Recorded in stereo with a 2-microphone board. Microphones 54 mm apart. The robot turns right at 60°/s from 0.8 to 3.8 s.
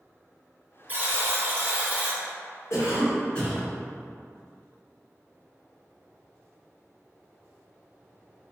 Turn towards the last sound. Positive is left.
turn(degrees=-170)